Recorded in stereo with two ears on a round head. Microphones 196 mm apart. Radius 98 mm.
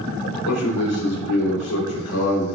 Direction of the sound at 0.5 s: 85° left.